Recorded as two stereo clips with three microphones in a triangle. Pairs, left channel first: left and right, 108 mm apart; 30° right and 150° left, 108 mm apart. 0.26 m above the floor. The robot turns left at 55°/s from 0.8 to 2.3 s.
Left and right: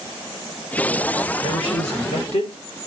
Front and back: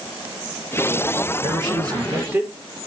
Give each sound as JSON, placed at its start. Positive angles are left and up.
{"t": 1.4, "sound": "a man speaking", "azimuth_deg": 125, "distance_m": 4.5}